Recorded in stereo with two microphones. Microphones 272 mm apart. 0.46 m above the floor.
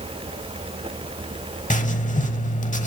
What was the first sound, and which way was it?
Writing, 30° left (ahead or behind).